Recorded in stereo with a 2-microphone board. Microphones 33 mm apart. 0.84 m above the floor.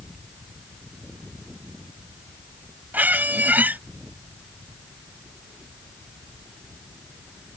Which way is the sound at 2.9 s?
60° right (ahead or behind).